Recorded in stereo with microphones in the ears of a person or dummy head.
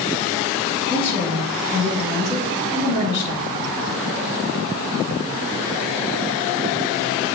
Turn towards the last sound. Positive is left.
turn(degrees=30)  # may be behind; listen again after turning